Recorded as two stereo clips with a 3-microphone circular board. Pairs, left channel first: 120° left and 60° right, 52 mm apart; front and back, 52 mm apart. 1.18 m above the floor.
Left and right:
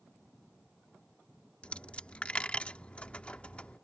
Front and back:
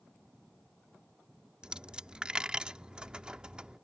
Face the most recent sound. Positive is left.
turn(degrees=135)